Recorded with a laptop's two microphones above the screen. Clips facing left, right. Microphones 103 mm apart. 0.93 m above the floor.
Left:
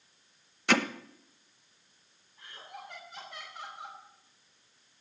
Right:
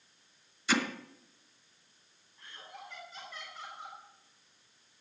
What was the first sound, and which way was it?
Hammering, 65° left (ahead or behind).